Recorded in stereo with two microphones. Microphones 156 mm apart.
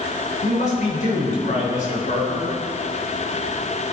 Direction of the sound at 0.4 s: 55° left (ahead or behind).